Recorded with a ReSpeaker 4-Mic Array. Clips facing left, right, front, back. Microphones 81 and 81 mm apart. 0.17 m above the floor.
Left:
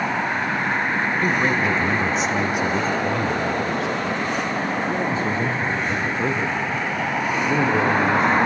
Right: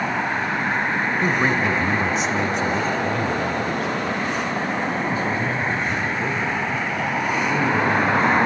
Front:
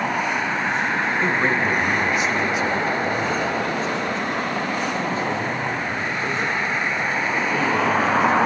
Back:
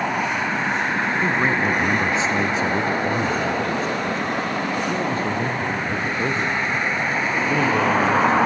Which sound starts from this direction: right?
A man speaking, at 1.2 s.